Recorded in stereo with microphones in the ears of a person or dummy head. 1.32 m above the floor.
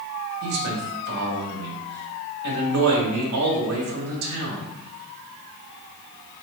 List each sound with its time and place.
0.4 s a man speaking: 85° right, 1.0 m